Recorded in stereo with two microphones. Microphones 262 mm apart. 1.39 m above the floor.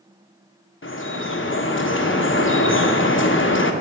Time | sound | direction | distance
0.8 | dripping | 50° left (ahead or behind) | 0.8 m